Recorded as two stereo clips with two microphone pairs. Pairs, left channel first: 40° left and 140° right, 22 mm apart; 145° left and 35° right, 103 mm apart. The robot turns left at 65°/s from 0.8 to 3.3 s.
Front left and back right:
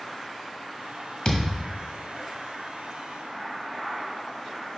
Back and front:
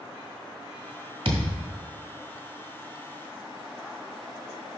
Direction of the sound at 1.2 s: 15° right.